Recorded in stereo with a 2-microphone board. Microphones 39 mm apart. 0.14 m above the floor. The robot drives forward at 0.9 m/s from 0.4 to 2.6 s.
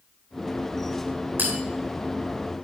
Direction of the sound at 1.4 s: 55° right (ahead or behind).